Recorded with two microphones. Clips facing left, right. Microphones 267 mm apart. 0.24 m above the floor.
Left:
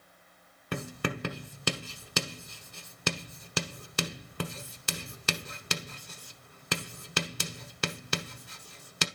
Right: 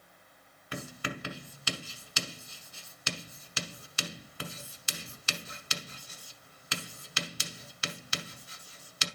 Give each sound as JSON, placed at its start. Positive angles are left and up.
{"t": 0.7, "sound": "writing", "side_deg": 60, "distance_m": 1.2}